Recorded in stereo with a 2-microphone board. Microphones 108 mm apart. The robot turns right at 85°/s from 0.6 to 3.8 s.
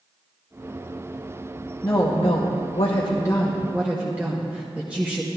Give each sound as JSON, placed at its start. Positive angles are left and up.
{"t": 1.8, "sound": "a woman speaking", "azimuth_deg": 25, "distance_m": 0.8}